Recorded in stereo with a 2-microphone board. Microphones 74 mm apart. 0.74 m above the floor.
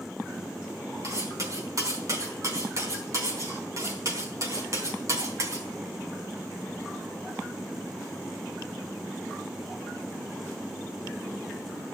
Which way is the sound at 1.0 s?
45° right (ahead or behind).